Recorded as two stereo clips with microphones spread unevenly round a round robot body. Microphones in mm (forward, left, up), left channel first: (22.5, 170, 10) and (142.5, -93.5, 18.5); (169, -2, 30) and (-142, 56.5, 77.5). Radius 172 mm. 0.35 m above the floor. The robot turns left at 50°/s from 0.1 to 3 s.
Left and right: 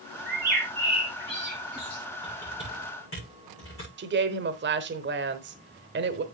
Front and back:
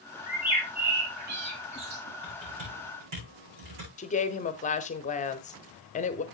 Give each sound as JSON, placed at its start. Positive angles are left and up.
{"t": 0.3, "sound": "a bird", "azimuth_deg": -75, "distance_m": 4.0}
{"t": 2.2, "sound": "typing on a keyboard", "azimuth_deg": -150, "distance_m": 7.0}
{"t": 4.0, "sound": "a woman speaking", "azimuth_deg": -45, "distance_m": 1.0}